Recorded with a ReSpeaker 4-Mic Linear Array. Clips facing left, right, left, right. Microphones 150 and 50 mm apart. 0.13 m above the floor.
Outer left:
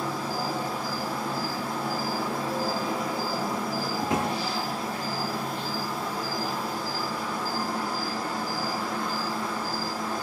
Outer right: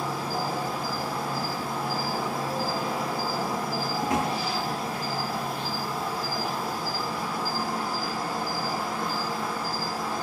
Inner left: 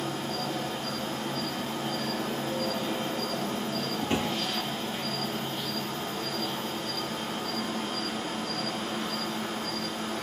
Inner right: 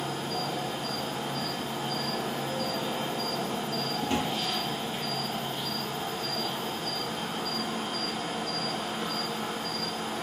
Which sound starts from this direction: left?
A drawer, at 4.0 s.